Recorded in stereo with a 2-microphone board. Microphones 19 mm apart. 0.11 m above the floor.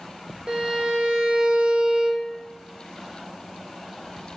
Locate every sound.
0.5 s a violin: 55° right (ahead or behind), 0.9 m